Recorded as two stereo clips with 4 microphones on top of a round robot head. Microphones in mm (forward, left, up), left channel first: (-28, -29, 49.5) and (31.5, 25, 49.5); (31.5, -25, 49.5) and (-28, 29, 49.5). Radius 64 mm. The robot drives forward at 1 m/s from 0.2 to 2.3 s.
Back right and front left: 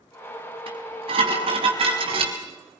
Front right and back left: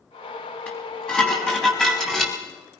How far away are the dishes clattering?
About 5.5 m.